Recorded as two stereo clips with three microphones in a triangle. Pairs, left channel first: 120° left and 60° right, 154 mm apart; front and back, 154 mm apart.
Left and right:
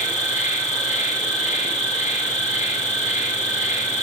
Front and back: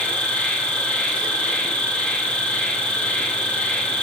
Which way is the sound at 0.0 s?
80° left.